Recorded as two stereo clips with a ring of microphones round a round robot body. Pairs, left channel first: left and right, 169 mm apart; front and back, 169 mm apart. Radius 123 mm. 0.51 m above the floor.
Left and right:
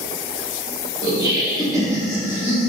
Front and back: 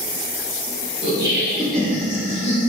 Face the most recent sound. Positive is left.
turn(degrees=-15)